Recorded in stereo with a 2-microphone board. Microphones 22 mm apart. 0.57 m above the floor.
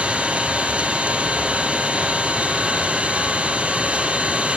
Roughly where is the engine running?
Right.